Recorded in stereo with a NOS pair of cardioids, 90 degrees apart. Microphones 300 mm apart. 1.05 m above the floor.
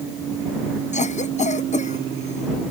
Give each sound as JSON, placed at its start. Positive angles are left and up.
{"t": 0.9, "sound": "a cough", "azimuth_deg": 25}